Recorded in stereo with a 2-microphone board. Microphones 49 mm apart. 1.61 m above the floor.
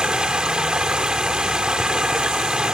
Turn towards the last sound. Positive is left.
turn(degrees=-20)  # may be behind; listen again after turning